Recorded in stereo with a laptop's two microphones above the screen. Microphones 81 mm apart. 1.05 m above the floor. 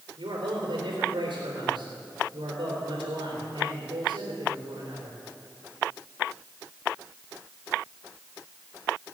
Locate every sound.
0.2 s a man speaking: 80° right, 3.5 m